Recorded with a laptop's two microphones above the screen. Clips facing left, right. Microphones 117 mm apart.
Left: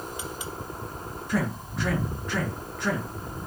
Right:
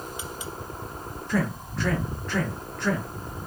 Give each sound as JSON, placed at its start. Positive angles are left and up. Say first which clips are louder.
{"t": 1.3, "sound": "a man speaking", "louder": "right 1 dB", "side_deg": 10, "distance_m": 1.5}